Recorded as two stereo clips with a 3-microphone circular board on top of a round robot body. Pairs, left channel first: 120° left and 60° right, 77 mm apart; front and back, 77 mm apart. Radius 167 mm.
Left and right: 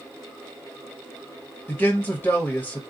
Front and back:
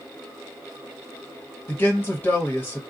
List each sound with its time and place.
1.7 s a man speaking: 60° left, 1.3 m